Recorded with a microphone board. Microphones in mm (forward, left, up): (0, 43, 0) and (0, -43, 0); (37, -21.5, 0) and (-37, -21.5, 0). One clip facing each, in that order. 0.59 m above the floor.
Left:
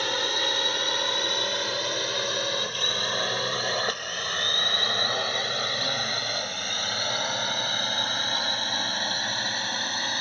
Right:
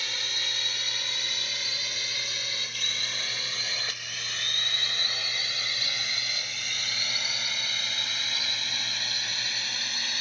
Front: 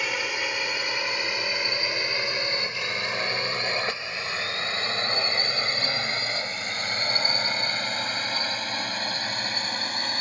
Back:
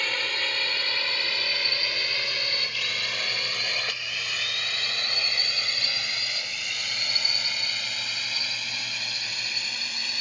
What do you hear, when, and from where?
0.0 s a drone: 80° left; by 10.2 s 45° left